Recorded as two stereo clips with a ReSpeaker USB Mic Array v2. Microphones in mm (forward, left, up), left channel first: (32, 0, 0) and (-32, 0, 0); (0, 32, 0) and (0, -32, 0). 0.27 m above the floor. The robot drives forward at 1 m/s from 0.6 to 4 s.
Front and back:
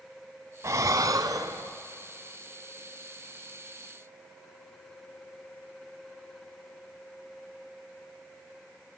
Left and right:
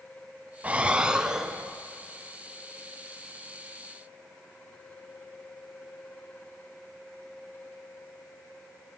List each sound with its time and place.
0.6 s breathing: 150° right, 0.6 m; by 1.8 s 170° right, 1.6 m